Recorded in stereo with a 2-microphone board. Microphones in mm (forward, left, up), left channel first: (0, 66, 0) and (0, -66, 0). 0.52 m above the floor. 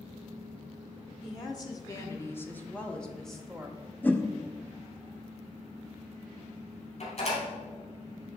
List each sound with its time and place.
1.2 s a woman speaking: 30° left (ahead or behind), 0.8 m; by 3.8 s centre (ahead or behind), 1.3 m
4.0 s a whoosh: 15° left (ahead or behind), 0.6 m
7.0 s a door slam: 60° left (ahead or behind), 2.5 m